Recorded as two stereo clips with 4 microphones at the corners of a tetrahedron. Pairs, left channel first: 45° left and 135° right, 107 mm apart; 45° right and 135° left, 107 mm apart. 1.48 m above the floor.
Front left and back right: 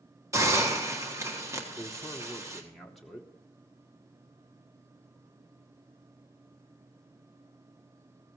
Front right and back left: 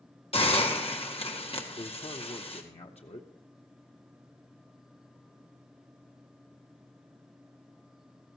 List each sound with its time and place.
0.3 s a hiss: 70° right, 1.5 m
1.8 s a man speaking: 45° right, 0.9 m